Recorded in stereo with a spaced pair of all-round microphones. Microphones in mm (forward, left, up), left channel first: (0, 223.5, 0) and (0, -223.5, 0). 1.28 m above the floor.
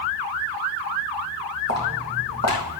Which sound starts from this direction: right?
Footsteps, at 1.7 s.